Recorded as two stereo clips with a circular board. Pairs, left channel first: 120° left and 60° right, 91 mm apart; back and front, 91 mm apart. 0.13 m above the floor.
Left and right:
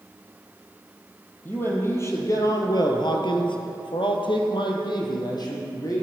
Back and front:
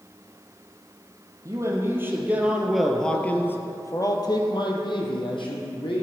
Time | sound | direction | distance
1.4 | a man speaking | 55° left | 3.5 m